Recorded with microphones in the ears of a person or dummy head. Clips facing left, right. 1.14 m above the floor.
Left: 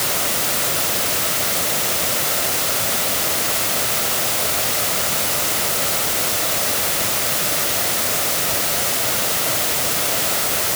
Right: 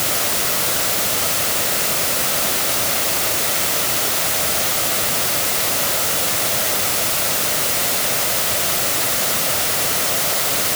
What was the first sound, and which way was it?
Only background noise.